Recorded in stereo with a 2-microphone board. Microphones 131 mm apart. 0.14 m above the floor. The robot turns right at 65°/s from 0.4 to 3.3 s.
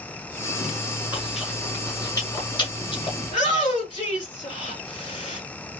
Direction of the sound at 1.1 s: 15° right (ahead or behind).